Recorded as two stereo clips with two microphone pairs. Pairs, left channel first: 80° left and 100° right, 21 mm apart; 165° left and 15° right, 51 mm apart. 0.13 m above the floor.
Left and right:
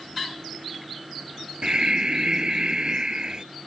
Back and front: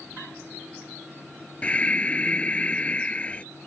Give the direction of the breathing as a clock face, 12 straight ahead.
5 o'clock.